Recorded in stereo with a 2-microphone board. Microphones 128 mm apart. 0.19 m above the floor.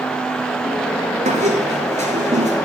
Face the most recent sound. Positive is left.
turn(degrees=-70)  # may be behind; listen again after turning